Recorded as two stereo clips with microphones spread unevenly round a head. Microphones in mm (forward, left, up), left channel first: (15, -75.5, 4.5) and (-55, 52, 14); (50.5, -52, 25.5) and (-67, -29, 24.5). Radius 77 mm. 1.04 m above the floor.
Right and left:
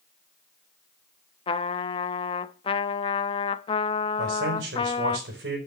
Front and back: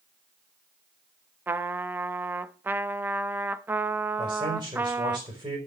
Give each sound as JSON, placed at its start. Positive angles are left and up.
{"t": 1.5, "sound": "a trumpet", "azimuth_deg": -115, "distance_m": 0.6}
{"t": 4.2, "sound": "a man speaking", "azimuth_deg": 100, "distance_m": 4.5}